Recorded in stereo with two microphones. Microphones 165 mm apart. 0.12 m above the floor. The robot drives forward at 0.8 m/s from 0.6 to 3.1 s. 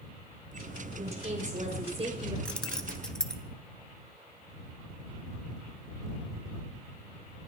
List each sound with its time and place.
1.0 s a woman speaking: 50° right (ahead or behind), 4 m; by 2.4 s 40° right (ahead or behind), 5 m
2.5 s keys jangling: 5° left (ahead or behind), 0.9 m